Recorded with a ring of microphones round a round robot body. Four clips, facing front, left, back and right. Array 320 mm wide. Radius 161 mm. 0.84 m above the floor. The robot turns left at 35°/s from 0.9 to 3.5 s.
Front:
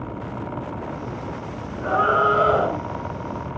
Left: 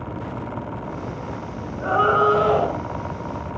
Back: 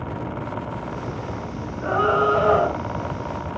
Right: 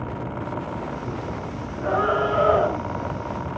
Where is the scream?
85° left, 4 m; by 2.8 s 50° left, 4 m.